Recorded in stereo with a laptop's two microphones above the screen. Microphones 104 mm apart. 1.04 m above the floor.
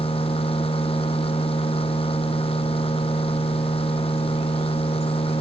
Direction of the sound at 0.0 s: 65° left (ahead or behind).